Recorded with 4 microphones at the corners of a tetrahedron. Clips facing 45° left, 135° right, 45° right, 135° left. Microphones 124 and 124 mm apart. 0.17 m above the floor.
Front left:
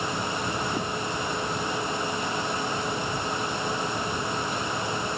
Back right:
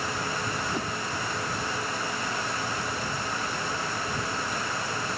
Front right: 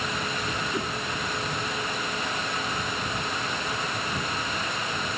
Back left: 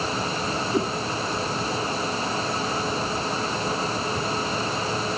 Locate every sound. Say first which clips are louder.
0.7 s a whoosh: front left 2 dB, back left 9 dB; 130° left